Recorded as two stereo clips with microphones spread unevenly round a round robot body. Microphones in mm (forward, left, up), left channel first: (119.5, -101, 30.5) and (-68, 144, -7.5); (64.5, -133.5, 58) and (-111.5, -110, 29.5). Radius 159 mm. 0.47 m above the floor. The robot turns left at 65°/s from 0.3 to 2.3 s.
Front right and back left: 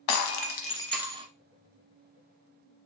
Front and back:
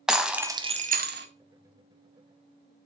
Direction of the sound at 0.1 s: 100° right.